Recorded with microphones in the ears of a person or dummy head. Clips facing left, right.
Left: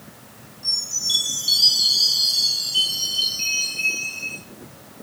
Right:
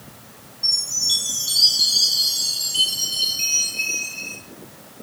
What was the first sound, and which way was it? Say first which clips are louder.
A chime: even; 10° right (ahead or behind).